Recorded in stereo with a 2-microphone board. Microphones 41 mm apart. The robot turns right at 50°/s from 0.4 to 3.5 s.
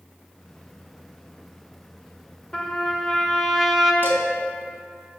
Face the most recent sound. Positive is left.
turn(degrees=-55)  # may be behind; listen again after turning